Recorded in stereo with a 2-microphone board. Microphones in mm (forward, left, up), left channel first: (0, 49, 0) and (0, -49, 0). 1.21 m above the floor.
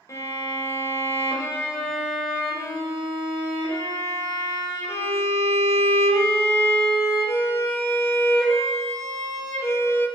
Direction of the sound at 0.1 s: 30° left (ahead or behind).